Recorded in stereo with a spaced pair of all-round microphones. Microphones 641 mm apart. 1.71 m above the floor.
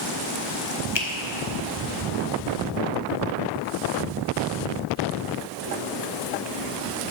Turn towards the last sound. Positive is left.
turn(degrees=40)  # may be behind; listen again after turning